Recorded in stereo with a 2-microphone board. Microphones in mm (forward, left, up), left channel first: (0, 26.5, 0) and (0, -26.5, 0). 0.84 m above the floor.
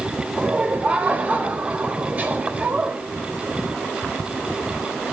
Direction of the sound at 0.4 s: 30° right (ahead or behind).